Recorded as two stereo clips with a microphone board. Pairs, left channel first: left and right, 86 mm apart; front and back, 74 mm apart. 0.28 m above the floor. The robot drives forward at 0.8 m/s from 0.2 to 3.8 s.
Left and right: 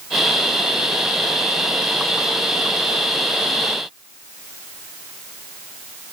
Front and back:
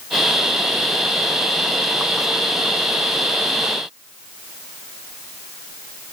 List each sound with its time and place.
Only background noise.